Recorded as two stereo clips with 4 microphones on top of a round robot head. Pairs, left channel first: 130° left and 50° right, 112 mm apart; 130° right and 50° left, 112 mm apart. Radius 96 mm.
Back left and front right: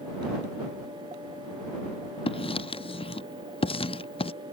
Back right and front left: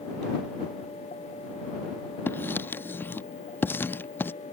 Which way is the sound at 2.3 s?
160° left.